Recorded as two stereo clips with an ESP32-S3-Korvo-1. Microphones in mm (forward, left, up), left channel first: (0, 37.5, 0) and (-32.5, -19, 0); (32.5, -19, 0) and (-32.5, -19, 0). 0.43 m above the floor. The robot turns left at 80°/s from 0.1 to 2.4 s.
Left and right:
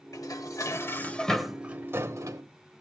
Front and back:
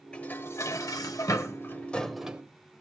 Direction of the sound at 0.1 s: 75° left.